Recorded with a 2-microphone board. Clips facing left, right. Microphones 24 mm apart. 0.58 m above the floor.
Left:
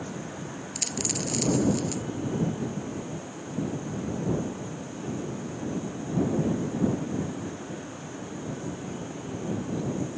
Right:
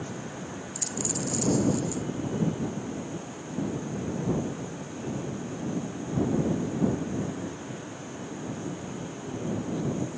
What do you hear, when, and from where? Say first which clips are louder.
0.8 s a dropped coin: left 2 dB; 60° left (ahead or behind)